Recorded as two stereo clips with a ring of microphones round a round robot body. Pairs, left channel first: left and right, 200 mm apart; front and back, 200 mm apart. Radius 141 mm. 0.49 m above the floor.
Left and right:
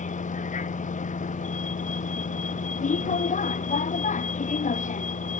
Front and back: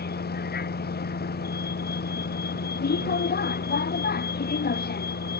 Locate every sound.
0.0 s a vehicle: 40° left